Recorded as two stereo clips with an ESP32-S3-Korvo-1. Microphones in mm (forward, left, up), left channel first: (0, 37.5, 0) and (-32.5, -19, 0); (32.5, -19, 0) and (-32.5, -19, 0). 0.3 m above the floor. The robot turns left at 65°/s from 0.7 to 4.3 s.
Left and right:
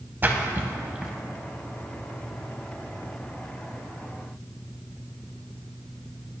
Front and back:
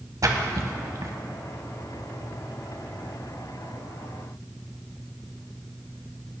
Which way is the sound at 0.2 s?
175° right.